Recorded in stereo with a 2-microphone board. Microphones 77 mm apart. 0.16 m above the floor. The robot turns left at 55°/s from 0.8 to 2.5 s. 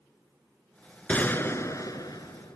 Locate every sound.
1.1 s a gunshot: 160° left, 1.1 m; by 2.6 s 85° left, 1.1 m